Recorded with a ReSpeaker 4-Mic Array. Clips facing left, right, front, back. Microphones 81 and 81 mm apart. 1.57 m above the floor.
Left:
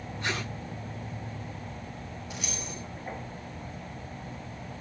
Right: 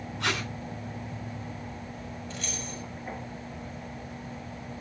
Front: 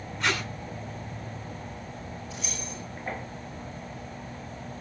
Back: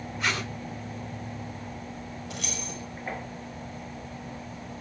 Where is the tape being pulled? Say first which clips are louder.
Right 2 dB, front 1 dB; 95° right, 6.5 m.